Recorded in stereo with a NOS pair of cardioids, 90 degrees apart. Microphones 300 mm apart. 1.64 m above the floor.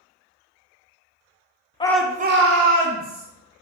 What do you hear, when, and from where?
1.8 s a shout: 15° left, 0.7 m; by 3.2 s 75° right, 1.6 m